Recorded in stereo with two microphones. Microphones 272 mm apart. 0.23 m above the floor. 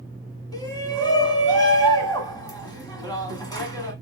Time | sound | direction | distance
0.5 | a shout | 15° left (ahead or behind) | 1.3 m